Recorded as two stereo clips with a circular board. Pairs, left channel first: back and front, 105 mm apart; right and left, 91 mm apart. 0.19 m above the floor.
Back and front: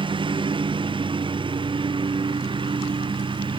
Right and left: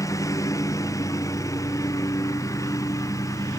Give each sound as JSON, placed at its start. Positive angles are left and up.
{"t": 0.0, "sound": "a lawn mower", "azimuth_deg": -35}